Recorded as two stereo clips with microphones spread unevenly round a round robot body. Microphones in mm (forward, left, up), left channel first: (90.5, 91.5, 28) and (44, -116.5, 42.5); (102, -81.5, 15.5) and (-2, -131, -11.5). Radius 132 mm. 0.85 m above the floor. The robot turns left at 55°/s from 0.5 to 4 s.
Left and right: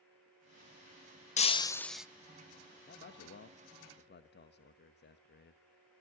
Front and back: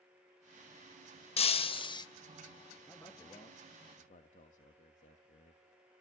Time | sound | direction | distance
1.4 | breaking glass | 20° left | 0.9 m
2.9 | a man speaking | 120° left | 1.3 m